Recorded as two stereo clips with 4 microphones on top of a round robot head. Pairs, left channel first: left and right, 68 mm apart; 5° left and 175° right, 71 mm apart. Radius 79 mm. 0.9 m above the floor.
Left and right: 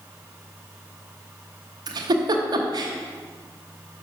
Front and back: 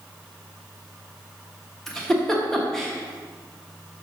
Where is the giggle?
80° right, 0.9 m.